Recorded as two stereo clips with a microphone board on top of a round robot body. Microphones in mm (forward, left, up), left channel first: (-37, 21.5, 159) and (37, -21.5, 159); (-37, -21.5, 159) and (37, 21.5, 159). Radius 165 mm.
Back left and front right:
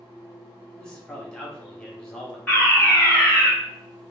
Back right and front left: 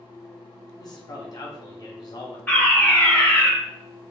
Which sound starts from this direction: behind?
A fire alarm, at 2.5 s.